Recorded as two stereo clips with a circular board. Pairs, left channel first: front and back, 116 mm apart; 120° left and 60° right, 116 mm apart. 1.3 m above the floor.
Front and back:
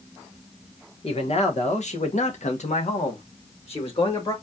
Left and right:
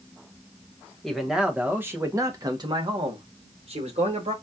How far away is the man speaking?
About 1.2 m.